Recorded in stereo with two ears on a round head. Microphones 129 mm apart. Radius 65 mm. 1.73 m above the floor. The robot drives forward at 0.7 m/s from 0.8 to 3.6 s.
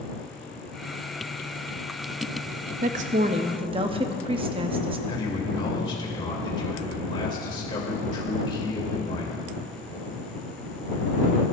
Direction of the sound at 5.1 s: 35° left (ahead or behind).